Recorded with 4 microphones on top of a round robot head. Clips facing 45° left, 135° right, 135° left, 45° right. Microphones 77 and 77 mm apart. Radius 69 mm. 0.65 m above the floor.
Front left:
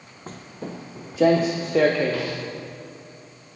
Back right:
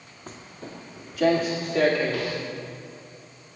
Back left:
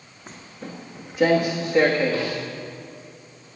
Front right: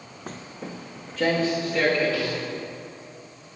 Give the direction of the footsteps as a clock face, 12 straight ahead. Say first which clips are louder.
Front left 5 dB, front right 1 dB; 12 o'clock.